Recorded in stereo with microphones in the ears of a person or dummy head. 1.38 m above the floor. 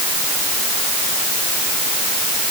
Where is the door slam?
I don't hear a door slam.